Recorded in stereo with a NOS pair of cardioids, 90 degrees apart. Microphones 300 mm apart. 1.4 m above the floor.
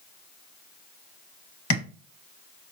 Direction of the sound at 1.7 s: 65° left.